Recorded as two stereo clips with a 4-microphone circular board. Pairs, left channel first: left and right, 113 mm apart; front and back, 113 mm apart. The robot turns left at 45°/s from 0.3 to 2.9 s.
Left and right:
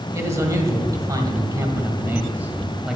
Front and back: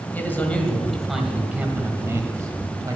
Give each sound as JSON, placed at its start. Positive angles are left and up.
{"t": 0.1, "sound": "a man speaking", "azimuth_deg": -60, "distance_m": 1.4}